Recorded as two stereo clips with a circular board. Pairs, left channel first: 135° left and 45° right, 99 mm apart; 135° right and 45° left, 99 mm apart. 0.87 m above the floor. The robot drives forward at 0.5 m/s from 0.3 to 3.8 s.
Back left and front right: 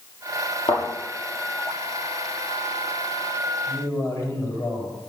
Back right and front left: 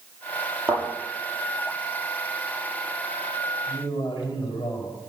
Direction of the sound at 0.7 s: 105° left.